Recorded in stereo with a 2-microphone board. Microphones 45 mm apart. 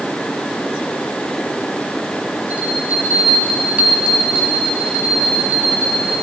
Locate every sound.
2.5 s a bell: 35° right (ahead or behind), 1.5 m